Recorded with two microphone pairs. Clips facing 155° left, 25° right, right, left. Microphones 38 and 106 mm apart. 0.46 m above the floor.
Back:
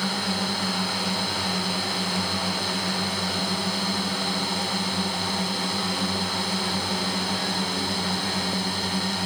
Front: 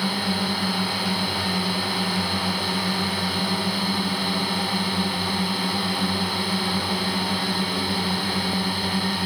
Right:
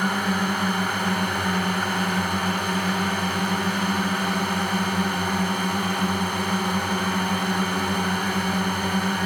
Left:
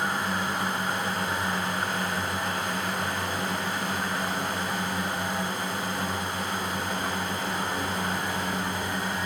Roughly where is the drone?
Right.